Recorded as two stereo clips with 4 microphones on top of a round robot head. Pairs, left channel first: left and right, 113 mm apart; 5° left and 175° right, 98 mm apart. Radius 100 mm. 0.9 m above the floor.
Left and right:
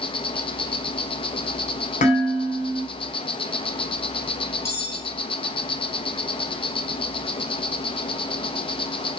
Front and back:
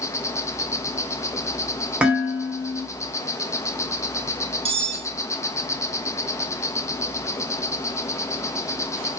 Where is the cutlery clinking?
160° left, 1.5 m.